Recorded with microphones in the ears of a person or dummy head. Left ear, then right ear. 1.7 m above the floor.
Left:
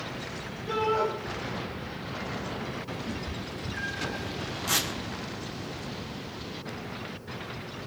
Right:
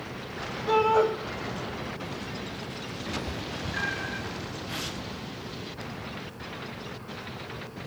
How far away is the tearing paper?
About 3 m.